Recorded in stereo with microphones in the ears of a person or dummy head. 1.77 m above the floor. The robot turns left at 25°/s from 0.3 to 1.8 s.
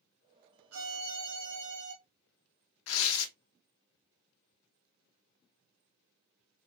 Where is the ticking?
I don't hear ticking.